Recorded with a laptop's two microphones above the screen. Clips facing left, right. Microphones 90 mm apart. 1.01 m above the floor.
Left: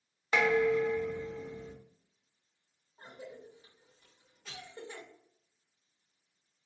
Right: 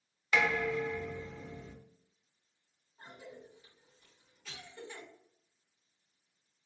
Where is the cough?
40° left (ahead or behind), 1.2 m.